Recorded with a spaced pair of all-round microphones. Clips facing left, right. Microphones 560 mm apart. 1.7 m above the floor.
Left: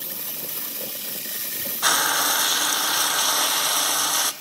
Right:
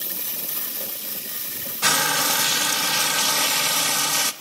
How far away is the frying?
About 0.8 m.